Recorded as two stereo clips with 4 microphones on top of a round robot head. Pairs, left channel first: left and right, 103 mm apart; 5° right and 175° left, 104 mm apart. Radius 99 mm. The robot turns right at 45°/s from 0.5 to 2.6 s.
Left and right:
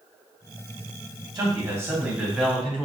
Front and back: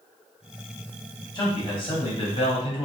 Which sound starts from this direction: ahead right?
A man speaking, at 1.4 s.